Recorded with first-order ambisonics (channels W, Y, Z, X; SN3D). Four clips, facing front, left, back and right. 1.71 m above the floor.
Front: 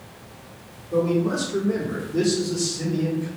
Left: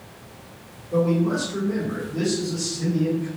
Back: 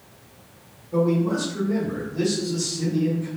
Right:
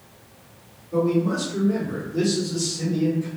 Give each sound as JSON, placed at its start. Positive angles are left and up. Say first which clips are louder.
{"t": 0.9, "sound": "a man speaking", "louder": "even, even", "azimuth_deg": 25, "distance_m": 1.5}